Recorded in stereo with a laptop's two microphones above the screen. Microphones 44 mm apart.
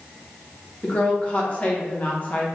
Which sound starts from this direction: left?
A woman speaking, at 0.8 s.